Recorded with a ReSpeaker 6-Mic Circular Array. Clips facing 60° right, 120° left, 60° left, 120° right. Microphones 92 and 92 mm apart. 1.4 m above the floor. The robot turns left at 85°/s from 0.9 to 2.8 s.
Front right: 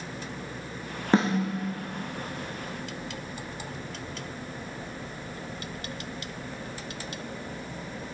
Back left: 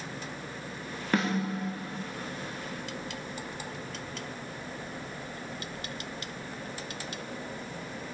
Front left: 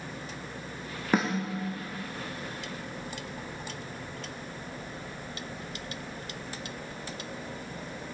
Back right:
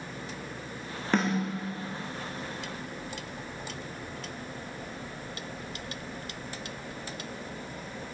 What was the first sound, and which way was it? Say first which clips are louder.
A snare drum: front right 5 dB, even; 15° right.